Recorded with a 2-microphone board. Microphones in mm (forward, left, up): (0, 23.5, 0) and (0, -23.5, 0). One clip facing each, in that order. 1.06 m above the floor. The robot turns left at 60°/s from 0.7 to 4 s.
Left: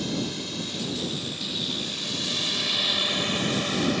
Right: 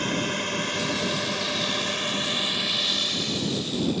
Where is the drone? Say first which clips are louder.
Right 4 dB; 45° right (ahead or behind); by 4.0 s 75° left (ahead or behind).